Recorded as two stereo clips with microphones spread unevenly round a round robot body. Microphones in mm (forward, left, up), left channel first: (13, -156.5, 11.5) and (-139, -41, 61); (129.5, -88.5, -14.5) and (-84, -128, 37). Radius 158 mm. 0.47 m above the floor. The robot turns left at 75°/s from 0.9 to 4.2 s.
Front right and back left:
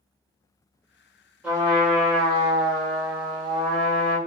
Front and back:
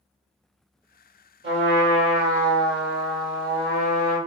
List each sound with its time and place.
1.4 s a trumpet: 125° right, 1.8 m; by 4.2 s 30° left, 1.8 m